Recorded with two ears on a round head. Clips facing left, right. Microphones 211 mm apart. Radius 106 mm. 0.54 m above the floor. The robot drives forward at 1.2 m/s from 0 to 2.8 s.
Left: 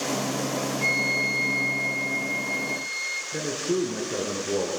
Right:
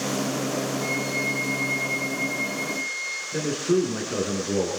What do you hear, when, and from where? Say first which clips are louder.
0.8 s a flute: right 2 dB; 80° left, 2.5 m; by 3.2 s 40° left (ahead or behind), 3.5 m
3.3 s a man speaking: right 4 dB; 10° right (ahead or behind), 6 m